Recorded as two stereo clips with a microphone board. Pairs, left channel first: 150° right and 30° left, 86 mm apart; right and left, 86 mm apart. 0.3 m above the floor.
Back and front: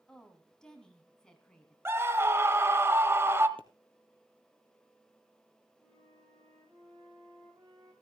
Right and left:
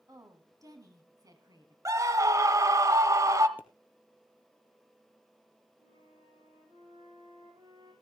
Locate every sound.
0.1 s a woman speaking: 130° left, 2.5 m
1.9 s a scream: 75° left, 1.2 m
3.6 s a pop: 20° left, 1.8 m
5.8 s a flute: 80° left, 7.5 m